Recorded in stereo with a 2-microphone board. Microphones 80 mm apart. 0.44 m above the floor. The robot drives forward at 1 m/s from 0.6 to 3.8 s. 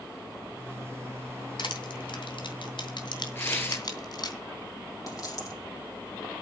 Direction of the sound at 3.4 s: 30° left (ahead or behind).